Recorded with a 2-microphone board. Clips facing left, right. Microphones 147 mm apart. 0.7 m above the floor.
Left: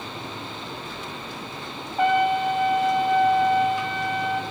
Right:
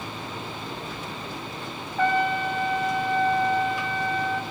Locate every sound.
2.0 s a trumpet: 15° left (ahead or behind), 0.5 m